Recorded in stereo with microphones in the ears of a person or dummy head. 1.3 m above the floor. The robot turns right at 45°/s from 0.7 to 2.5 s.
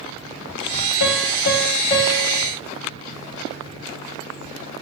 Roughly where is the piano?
Left.